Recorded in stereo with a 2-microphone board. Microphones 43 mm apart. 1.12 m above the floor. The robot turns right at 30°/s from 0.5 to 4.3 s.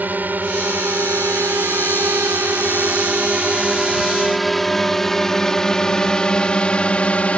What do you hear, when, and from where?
0.0 s a drone: 45° right (ahead or behind); by 7.4 s 30° left (ahead or behind)